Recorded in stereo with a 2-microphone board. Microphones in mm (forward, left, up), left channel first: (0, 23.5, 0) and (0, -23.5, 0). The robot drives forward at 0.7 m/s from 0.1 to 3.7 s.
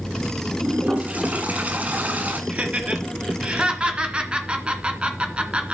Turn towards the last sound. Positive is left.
turn(degrees=-20)  # may be behind; listen again after turning